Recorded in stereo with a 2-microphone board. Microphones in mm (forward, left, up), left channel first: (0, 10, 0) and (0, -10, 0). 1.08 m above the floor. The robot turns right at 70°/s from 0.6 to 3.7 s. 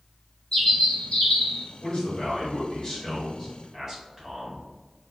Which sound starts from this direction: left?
A man speaking, at 1.8 s.